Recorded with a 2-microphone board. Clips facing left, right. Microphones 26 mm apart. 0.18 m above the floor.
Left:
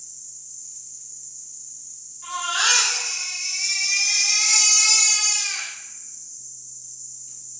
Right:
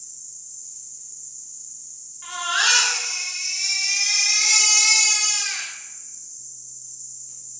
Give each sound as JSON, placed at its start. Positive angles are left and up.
{"t": 0.0, "sound": "an insect", "side_deg": 40, "distance_m": 1.2}
{"t": 2.2, "sound": "a baby crying", "side_deg": -30, "distance_m": 1.1}